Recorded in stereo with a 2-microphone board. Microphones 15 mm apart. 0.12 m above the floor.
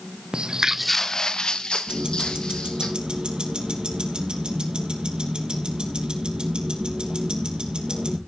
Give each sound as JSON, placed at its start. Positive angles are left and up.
{"t": 0.3, "sound": "footsteps", "side_deg": -65, "distance_m": 0.8}
{"t": 1.9, "sound": "ticking", "side_deg": -70, "distance_m": 2.5}